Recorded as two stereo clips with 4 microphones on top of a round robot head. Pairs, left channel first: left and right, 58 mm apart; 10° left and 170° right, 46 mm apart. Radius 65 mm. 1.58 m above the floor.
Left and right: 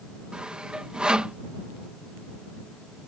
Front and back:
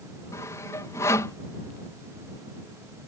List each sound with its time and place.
0.3 s sawing: 15° right